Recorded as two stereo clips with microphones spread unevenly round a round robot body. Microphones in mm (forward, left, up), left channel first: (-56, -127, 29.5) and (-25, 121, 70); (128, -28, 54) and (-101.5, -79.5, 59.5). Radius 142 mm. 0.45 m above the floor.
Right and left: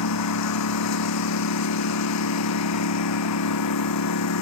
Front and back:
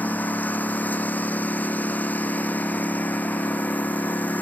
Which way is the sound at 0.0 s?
70° right.